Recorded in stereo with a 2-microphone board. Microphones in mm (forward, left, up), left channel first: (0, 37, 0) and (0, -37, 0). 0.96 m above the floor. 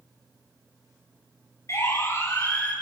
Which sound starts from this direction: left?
A siren, at 1.7 s.